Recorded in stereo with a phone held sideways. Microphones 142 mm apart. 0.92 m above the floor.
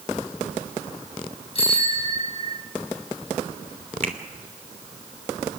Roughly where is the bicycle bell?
Left.